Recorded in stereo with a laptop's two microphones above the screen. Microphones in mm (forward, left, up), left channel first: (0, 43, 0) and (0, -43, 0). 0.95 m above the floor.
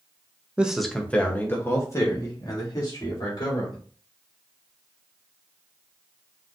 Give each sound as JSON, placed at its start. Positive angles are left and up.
{"t": 0.6, "sound": "a man speaking", "side_deg": -15, "distance_m": 0.6}